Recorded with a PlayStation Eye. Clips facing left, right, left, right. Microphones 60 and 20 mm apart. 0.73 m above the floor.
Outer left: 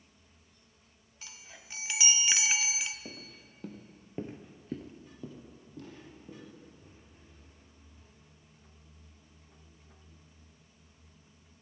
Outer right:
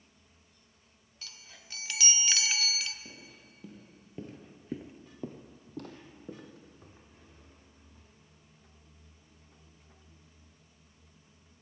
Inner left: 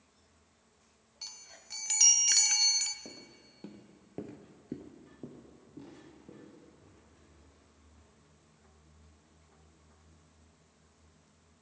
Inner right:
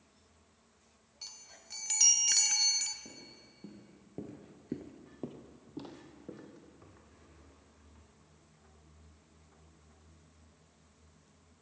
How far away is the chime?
About 0.5 m.